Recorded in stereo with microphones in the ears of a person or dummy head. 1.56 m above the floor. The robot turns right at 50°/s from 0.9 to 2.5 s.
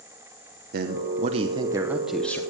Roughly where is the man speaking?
Ahead right.